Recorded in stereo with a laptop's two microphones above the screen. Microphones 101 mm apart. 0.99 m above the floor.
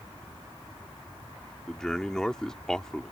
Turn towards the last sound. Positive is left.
turn(degrees=5)  # may be behind; listen again after turning